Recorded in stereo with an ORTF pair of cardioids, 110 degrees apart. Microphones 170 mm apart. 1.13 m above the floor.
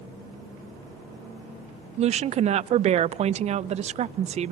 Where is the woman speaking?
40° right, 0.5 m.